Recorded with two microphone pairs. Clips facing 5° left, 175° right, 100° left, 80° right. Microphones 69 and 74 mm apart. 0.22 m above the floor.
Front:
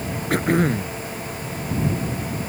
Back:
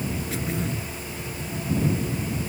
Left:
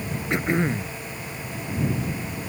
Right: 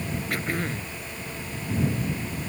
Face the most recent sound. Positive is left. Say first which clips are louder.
# front 9 dB, left 8 dB
turn(degrees=30)